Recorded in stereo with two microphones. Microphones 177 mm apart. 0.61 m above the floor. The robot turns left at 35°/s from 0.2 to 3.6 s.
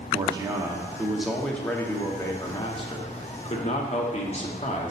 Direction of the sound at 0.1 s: 140° right.